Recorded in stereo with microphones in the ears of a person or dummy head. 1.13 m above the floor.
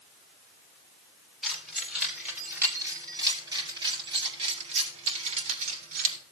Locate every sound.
1.4 s keys jangling: 5° right (ahead or behind), 3 m; by 6.2 s 55° right (ahead or behind), 3 m